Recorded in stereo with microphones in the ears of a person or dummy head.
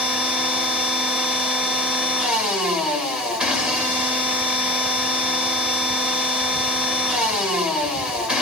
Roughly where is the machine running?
Centre.